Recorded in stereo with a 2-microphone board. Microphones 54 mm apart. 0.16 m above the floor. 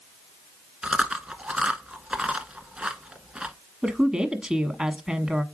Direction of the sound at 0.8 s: 15° right (ahead or behind).